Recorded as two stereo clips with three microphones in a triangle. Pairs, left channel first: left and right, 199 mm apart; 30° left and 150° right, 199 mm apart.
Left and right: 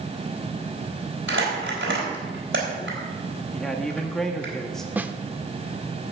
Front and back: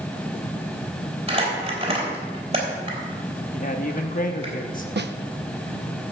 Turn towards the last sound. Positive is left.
turn(degrees=-170)